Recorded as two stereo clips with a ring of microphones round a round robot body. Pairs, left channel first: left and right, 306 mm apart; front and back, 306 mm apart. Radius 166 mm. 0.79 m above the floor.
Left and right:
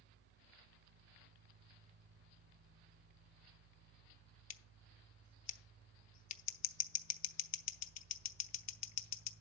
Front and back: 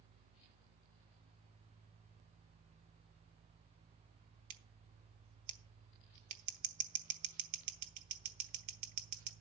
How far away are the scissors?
About 0.8 m.